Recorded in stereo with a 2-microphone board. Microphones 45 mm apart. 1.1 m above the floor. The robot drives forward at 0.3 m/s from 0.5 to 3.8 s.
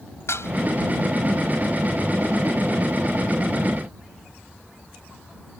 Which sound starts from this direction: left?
Dishes clattering, at 0.3 s.